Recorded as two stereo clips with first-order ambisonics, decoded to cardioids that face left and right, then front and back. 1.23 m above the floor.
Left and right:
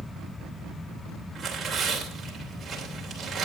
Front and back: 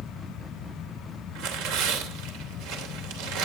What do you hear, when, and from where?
1.4 s tearing paper: 165° right, 3 m